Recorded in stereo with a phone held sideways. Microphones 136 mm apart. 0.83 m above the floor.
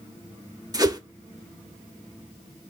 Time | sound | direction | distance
0.7 | a whoosh | 30° right (ahead or behind) | 1.1 m